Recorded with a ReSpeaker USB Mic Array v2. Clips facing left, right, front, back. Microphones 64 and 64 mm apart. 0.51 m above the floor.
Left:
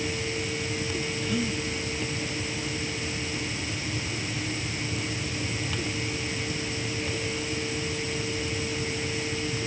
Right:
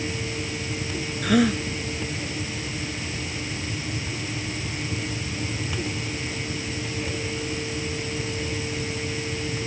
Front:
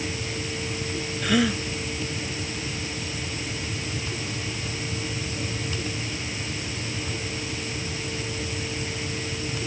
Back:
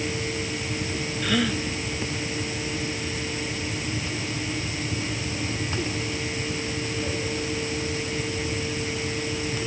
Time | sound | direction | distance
1.2 | a gasp | 85° right | ?